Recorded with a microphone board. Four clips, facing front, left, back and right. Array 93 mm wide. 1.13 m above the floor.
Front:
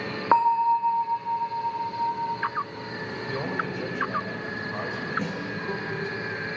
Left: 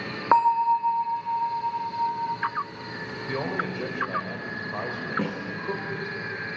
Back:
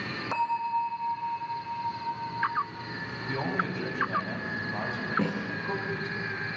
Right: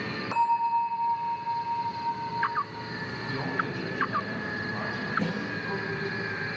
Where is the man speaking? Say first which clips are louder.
Left 2 dB, even; 70° left, 5 m.